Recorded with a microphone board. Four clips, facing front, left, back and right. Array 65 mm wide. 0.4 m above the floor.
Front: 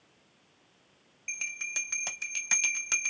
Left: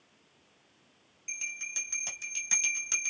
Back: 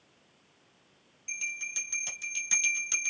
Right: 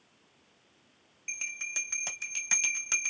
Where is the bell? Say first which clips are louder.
Right 2 dB, even; 30° right, 1.1 m.